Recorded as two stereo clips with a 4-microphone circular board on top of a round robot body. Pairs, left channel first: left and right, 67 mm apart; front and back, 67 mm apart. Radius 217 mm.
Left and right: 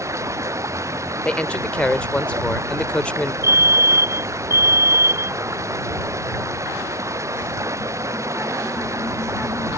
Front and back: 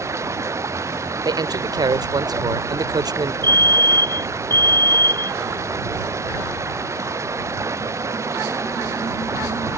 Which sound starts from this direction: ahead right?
A fire alarm, at 3.4 s.